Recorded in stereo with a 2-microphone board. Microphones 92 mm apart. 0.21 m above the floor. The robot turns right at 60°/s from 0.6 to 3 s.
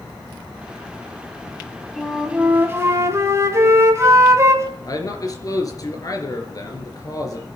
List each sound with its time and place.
2.0 s a flute: straight behind, 1.8 m; by 4.7 s 115° right, 1.8 m
4.9 s a man speaking: 40° left (ahead or behind), 3.5 m